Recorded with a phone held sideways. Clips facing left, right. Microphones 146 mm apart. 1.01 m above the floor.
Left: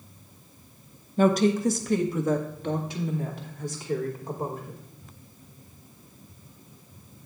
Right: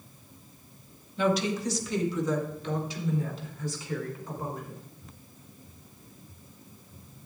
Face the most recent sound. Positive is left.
turn(degrees=55)  # may be behind; listen again after turning